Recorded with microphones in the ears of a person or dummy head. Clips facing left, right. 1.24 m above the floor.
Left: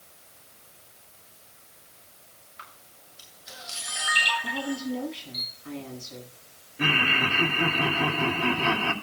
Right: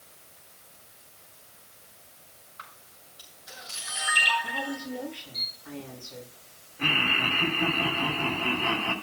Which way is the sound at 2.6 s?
30° left (ahead or behind).